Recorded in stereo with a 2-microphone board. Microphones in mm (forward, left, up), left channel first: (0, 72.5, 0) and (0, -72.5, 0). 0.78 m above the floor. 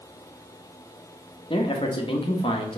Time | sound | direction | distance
1.5 | a man speaking | 35° left (ahead or behind) | 1.1 m